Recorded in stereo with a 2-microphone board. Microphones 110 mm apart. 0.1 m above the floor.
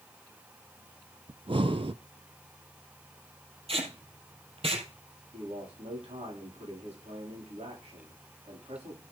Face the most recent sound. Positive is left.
turn(degrees=-85)